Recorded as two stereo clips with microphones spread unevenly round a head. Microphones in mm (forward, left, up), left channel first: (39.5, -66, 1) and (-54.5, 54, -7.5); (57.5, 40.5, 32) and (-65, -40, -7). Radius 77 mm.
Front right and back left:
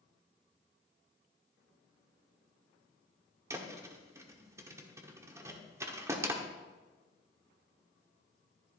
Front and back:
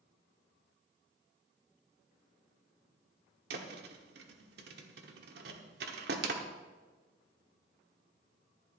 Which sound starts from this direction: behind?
A thud, at 3.5 s.